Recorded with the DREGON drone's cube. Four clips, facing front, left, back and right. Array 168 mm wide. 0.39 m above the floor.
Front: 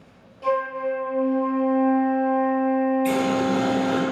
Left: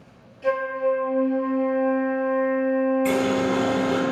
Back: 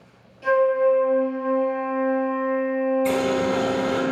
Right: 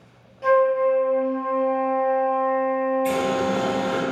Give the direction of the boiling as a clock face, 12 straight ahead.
8 o'clock.